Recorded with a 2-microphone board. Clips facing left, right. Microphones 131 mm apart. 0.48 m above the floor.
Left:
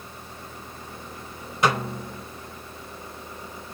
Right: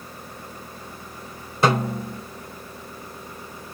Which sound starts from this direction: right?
A snare drum, at 1.6 s.